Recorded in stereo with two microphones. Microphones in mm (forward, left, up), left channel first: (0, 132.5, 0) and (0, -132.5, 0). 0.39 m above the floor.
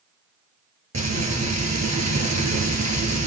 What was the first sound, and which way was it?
Frying, 80° right.